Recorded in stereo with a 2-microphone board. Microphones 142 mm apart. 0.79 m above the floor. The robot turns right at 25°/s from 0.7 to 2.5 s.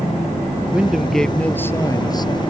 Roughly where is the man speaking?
Ahead.